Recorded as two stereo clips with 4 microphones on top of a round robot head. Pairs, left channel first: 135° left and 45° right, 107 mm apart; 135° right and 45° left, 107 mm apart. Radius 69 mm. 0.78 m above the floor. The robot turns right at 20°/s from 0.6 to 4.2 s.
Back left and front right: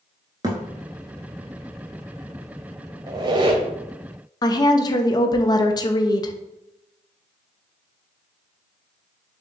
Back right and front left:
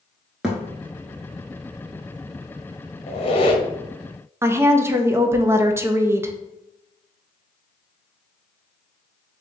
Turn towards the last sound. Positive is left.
turn(degrees=100)